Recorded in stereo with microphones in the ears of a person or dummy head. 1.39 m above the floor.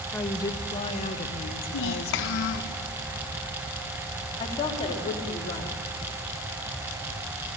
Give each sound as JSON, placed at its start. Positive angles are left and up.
{"t": 0.1, "sound": "a woman speaking", "side_deg": 5, "distance_m": 1.0}
{"t": 1.7, "sound": "a child speaking", "side_deg": 65, "distance_m": 1.0}
{"t": 4.4, "sound": "a woman speaking", "side_deg": 30, "distance_m": 3.5}